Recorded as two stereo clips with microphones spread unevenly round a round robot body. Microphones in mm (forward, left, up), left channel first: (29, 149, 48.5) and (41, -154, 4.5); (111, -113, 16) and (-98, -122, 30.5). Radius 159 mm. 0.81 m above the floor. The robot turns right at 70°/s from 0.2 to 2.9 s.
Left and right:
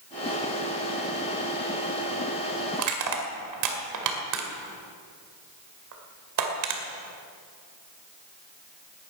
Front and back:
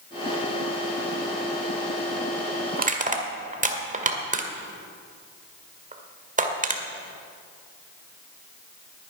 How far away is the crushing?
About 2.0 m.